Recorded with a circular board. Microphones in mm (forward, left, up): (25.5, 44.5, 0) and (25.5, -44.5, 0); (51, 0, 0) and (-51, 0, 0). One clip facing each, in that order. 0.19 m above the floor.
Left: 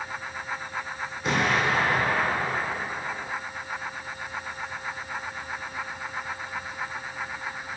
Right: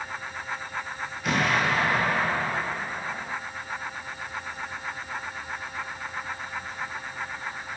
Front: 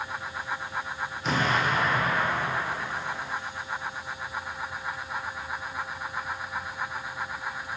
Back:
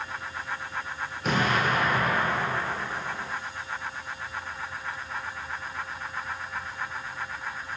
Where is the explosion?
150° left, 1.1 m.